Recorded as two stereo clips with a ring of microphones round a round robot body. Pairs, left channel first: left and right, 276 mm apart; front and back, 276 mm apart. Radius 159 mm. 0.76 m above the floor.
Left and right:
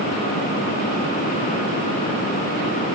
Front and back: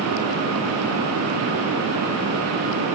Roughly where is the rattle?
I don't hear a rattle.